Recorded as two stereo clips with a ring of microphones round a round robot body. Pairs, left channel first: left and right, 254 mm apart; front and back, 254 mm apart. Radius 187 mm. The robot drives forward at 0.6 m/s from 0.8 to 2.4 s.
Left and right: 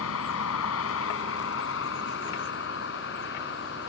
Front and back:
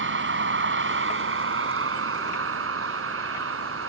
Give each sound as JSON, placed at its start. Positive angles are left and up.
{"t": 0.0, "sound": "a vehicle", "azimuth_deg": 140}